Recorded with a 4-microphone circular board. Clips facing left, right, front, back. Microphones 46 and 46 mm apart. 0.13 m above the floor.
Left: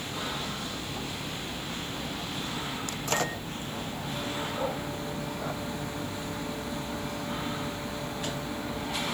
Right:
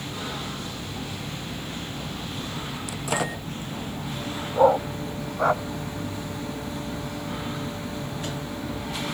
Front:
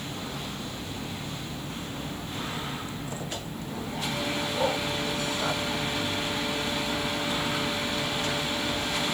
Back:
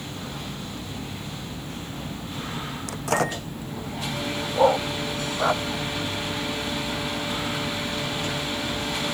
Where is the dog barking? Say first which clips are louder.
Right 12 dB, back 10 dB; 125° right.